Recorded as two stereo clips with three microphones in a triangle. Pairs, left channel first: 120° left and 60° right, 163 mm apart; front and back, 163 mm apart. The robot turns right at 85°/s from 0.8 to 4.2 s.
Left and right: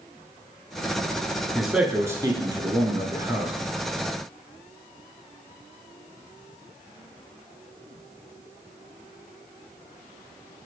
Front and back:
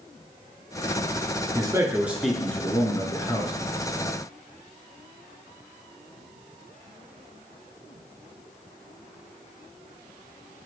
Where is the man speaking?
155° right, 1.6 m; by 3.5 s 15° left, 1.6 m.